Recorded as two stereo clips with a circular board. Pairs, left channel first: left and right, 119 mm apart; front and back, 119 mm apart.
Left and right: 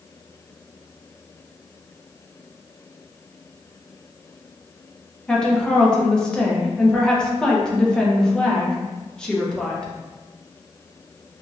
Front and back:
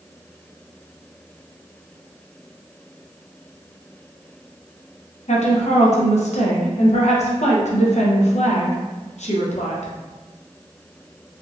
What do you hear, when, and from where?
5.3 s a woman speaking: 5° left, 0.8 m